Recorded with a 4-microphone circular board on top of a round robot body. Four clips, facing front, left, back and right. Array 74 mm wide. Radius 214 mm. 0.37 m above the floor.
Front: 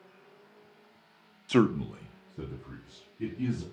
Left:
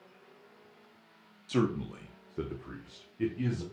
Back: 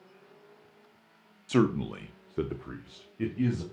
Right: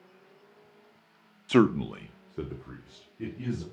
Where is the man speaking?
70° right, 1.0 m; by 3.6 s 165° left, 3 m.